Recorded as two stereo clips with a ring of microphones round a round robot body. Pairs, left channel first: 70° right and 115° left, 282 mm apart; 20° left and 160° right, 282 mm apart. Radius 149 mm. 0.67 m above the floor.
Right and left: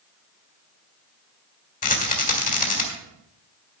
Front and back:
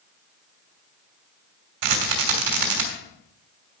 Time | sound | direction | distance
1.8 | a rattle | 130° right | 2.5 m